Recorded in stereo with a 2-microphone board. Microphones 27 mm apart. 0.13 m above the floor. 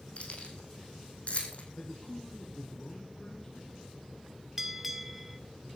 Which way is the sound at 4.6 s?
10° right (ahead or behind).